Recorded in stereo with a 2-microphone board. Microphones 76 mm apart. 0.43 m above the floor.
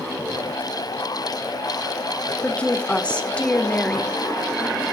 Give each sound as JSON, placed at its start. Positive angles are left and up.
{"t": 2.4, "sound": "a woman speaking", "side_deg": 15, "distance_m": 1.0}